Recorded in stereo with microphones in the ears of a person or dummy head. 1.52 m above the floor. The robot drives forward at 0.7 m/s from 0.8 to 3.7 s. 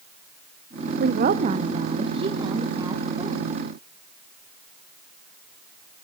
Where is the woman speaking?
55° right (ahead or behind), 1.0 m; by 3.5 s 20° right (ahead or behind), 2.5 m.